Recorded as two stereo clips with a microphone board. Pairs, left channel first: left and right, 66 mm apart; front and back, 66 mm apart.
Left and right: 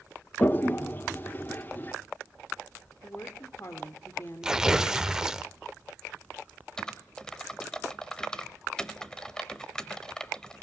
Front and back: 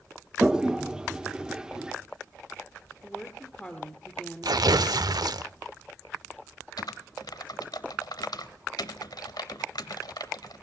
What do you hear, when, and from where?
0.4 s a toilet flushing: 115° left, 0.7 m
3.0 s a woman speaking: 75° left, 1.4 m
4.4 s tearing paper: 170° right, 0.5 m
6.8 s typing on a keyboard: 10° left, 0.9 m